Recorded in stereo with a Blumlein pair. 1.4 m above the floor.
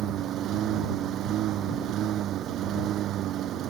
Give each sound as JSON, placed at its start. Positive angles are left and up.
{"t": 0.0, "sound": "a lawn mower", "azimuth_deg": -30}